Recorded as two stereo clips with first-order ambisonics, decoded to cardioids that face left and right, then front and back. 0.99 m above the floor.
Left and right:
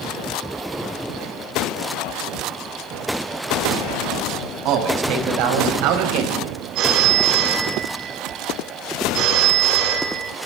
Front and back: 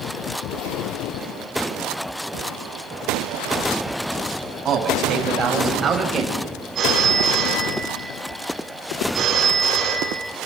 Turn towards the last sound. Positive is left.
turn(degrees=-120)